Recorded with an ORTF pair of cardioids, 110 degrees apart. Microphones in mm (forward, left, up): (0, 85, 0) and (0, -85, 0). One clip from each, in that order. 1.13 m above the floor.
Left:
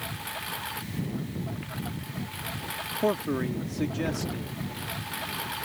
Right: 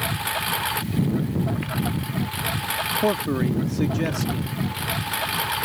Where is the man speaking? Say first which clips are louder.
Right 4 dB; 25° right.